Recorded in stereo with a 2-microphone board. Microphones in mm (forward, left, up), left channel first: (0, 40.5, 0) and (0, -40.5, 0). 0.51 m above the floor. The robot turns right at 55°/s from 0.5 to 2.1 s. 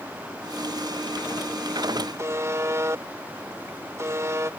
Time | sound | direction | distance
2.2 | a buzzer | 35° right (ahead or behind) | ?